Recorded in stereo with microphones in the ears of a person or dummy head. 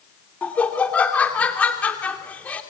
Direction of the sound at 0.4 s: 5° left (ahead or behind).